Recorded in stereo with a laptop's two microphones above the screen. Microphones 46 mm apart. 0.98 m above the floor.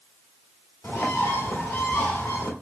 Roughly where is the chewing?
I don't hear chewing.